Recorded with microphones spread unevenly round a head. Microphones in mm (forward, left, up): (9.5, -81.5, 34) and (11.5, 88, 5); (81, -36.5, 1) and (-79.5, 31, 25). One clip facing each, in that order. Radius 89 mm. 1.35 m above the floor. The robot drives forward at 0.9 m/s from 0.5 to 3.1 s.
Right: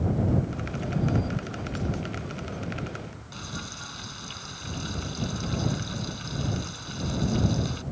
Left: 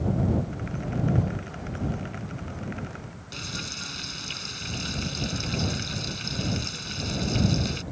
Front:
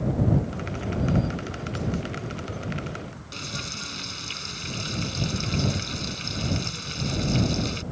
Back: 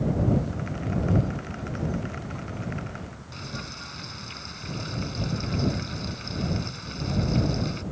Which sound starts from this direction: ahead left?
Frying, at 3.3 s.